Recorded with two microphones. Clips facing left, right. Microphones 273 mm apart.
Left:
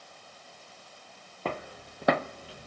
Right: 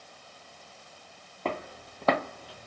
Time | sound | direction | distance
1.4 | footsteps | 5° left (ahead or behind) | 1.0 m